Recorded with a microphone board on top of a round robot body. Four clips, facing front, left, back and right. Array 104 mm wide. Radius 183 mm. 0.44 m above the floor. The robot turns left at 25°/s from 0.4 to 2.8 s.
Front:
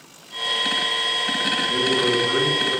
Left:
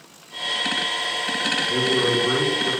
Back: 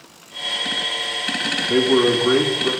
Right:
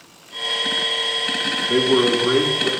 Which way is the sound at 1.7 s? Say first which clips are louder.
Right 6 dB, back 7 dB; 155° right.